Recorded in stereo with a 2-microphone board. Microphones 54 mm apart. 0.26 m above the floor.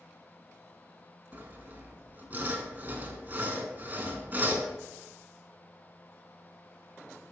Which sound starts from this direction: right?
Sawing, at 1.3 s.